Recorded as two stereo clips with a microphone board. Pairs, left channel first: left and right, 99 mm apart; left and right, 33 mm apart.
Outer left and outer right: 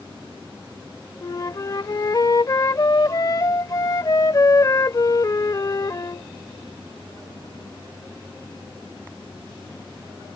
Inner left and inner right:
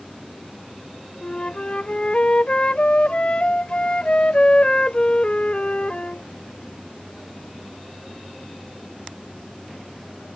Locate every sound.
1.2 s a flute: 40° left (ahead or behind)